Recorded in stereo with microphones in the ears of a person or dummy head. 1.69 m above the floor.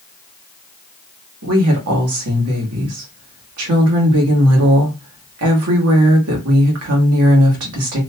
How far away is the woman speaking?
About 1.2 m.